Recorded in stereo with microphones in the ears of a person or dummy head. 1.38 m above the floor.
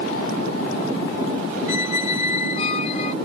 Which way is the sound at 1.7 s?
40° left (ahead or behind).